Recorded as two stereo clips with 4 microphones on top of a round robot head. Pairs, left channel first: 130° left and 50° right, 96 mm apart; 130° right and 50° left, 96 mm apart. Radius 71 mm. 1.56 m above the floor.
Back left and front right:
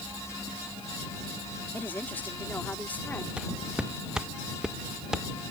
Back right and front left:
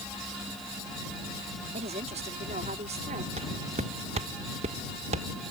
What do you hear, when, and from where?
1.7 s a woman speaking: 60° left
3.4 s footsteps: 35° left